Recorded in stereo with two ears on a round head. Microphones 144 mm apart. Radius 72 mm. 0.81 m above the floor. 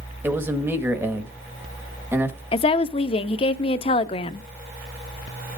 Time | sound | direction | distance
0.2 | a man speaking | 15° right (ahead or behind) | 1.1 m
2.5 | a woman speaking | 35° left (ahead or behind) | 0.6 m